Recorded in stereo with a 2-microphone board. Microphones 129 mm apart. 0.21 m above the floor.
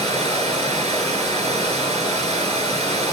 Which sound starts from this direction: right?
Running water, at 0.0 s.